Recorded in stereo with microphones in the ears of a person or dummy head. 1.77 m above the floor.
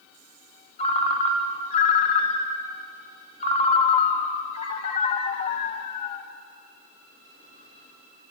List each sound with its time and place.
0.8 s a ringtone: 35° left (ahead or behind), 1.3 m